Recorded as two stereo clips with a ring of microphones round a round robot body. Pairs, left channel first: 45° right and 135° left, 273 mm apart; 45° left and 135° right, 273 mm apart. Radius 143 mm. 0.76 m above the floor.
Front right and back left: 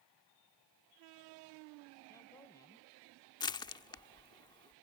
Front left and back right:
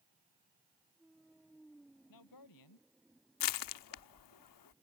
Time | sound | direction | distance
2.1 | a man speaking | 35° left | ?
3.4 | crushing | 30° left | ?